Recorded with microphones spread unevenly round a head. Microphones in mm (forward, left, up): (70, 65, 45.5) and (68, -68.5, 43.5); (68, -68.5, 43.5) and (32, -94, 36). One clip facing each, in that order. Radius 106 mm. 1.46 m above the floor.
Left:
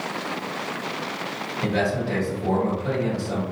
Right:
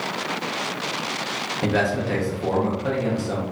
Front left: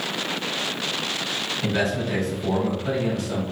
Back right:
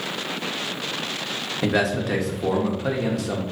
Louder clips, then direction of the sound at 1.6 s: Right 2 dB, back right 3 dB; 150° right.